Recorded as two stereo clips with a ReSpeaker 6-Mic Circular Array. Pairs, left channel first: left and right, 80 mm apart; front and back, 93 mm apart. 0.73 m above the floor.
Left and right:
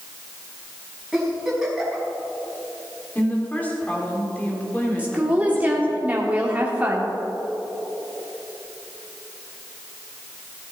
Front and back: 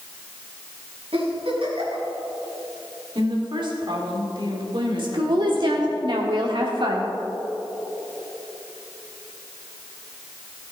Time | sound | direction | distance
1.1 | a giggle | 170° right | 3.5 m
3.1 | a woman speaking | 160° left | 2.5 m
5.0 | a woman speaking | 160° right | 1.6 m